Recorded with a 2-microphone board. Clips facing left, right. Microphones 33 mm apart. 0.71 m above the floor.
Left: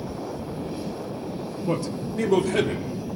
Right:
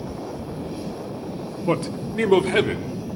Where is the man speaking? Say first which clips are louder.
Right 4 dB; 50° right (ahead or behind), 0.9 m; by 2.8 s 35° right (ahead or behind), 1.4 m.